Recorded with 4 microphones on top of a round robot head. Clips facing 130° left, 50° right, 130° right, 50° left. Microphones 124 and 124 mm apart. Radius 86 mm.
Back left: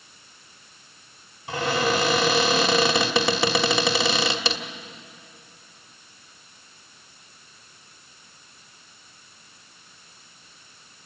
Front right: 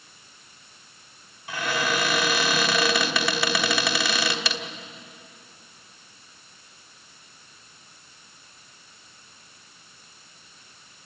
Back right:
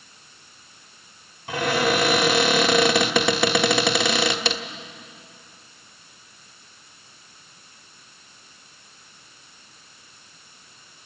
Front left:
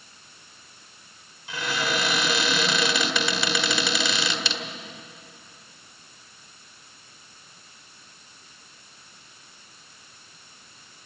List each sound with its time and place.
1.5 s a cupboard door: 165° right, 1.3 m